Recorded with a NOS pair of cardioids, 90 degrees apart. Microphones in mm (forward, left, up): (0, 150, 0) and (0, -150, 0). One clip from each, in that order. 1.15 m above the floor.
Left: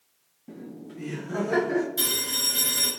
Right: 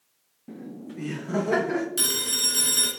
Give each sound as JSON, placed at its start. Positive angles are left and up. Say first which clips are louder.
{"t": 0.5, "sound": "laughter", "louder": "right 1 dB", "azimuth_deg": -10, "distance_m": 0.6}
{"t": 2.0, "sound": "a phone ringing", "louder": "right 1 dB", "azimuth_deg": -50, "distance_m": 2.5}